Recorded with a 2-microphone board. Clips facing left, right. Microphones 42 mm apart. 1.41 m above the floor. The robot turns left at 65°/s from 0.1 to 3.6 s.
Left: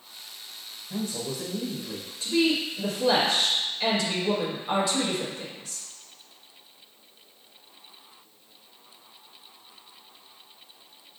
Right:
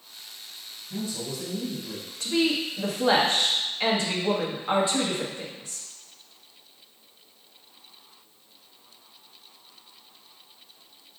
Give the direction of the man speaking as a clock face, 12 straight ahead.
10 o'clock.